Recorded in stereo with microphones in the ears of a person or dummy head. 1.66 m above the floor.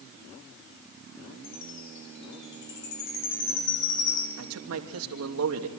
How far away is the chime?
About 1.9 m.